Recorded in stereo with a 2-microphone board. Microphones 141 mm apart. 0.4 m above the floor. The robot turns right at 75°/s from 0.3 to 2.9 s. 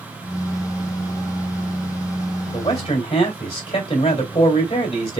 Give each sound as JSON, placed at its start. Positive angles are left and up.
{"t": 2.5, "sound": "a man speaking", "side_deg": 35, "distance_m": 1.7}